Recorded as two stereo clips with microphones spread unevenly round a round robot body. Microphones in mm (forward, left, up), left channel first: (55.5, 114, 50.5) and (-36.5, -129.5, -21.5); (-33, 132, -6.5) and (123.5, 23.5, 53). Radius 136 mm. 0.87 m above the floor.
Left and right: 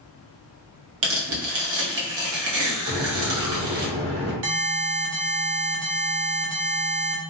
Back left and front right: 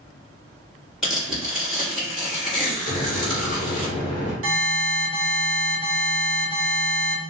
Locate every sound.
1.0 s tearing paper: 130° right, 0.9 m
2.9 s a microwave: 155° right, 1.4 m
4.4 s an alarm: 80° right, 0.7 m